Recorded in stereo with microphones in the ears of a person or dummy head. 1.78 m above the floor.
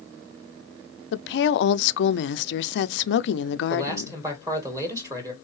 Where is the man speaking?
15° right (ahead or behind), 2 m.